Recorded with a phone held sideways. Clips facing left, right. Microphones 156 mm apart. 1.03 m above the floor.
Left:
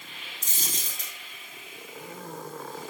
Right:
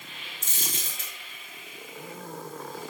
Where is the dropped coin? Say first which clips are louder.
Right 1 dB; 40° left (ahead or behind), 2 m.